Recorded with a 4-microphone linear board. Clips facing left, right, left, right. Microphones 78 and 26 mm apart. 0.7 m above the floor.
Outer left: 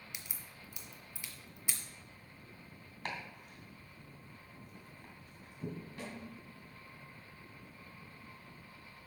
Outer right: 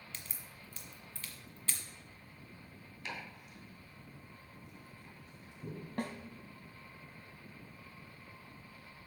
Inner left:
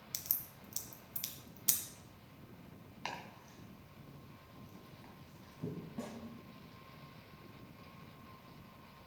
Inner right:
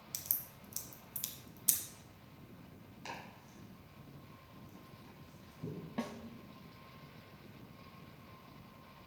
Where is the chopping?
50° left (ahead or behind), 2.5 m.